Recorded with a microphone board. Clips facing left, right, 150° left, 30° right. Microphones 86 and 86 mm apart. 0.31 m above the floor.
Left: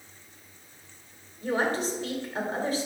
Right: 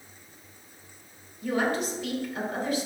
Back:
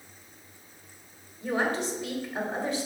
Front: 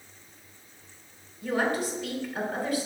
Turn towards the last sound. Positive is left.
turn(degrees=105)